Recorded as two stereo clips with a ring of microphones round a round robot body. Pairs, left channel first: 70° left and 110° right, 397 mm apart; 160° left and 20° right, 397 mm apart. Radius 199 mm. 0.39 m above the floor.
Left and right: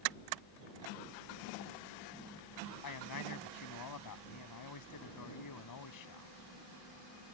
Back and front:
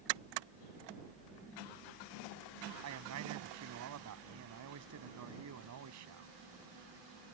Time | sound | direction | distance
2.8 | a man speaking | 25° left | ?